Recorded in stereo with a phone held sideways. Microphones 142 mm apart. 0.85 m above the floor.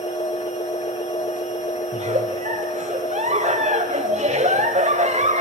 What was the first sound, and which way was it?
A machine running, 60° left (ahead or behind).